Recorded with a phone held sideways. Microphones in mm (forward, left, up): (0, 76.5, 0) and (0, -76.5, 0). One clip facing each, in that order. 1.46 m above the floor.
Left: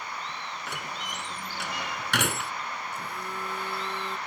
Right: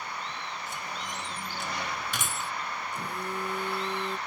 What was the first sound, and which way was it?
A door slam, 80° left.